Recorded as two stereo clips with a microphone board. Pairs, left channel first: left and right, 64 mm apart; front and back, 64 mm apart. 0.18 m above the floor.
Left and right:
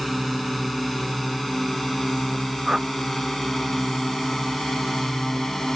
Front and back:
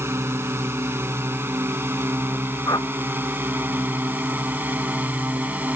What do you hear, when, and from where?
0.0 s a drone: straight behind; by 5.8 s 165° left
2.7 s a whoosh: 10° right